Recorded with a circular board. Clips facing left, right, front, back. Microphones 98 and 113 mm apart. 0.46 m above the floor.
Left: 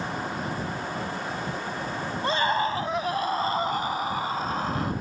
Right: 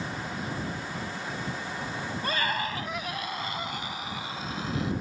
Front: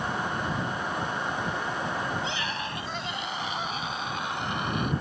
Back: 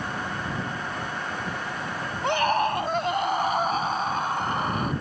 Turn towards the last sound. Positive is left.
turn(degrees=130)